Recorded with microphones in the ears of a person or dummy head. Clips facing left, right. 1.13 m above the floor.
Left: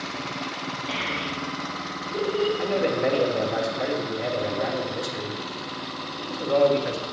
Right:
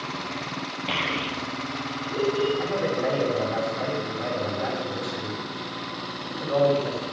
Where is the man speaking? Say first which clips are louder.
Left 2 dB; 35° left (ahead or behind), 1.5 m.